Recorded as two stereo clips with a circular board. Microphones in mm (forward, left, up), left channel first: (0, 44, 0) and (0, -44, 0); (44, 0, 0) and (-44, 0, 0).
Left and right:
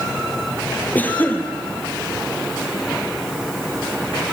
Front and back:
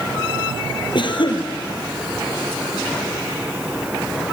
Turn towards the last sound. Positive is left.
turn(degrees=20)